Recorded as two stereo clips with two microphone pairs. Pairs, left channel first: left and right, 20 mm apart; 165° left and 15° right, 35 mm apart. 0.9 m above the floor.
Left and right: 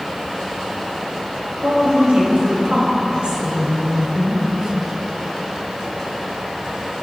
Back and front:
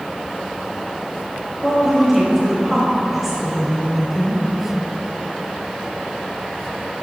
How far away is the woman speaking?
About 4.5 m.